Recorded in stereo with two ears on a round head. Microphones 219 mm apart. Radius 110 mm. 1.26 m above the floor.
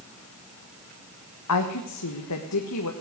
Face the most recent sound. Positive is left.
turn(degrees=75)  # may be behind; listen again after turning